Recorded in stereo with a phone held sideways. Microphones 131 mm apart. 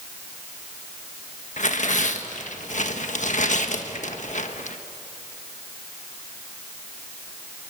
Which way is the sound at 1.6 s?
65° left (ahead or behind).